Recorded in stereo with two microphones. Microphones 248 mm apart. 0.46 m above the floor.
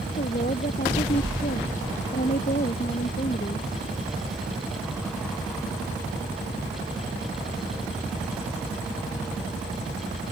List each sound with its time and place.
0.2 s a woman speaking: 35° left (ahead or behind)